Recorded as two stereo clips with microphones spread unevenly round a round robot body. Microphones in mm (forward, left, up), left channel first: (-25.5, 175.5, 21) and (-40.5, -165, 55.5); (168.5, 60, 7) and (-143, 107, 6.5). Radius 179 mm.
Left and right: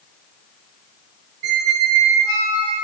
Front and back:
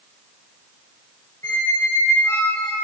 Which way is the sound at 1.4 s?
90° right.